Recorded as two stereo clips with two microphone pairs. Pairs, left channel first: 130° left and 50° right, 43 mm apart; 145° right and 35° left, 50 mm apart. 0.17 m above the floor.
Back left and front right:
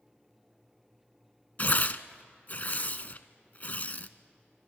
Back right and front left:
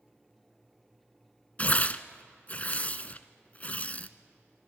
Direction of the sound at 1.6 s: 165° left.